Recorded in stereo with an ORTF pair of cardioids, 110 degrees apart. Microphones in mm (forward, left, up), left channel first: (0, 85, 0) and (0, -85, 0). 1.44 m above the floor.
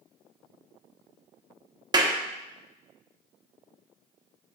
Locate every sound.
1.9 s a clap: 25° right, 1.1 m